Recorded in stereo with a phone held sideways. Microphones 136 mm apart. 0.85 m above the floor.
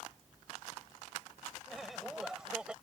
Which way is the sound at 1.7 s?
Centre (ahead or behind).